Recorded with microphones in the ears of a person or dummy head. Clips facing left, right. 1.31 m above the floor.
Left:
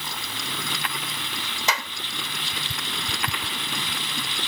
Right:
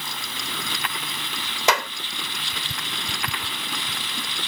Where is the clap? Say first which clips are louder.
Right 7 dB; 45° right (ahead or behind).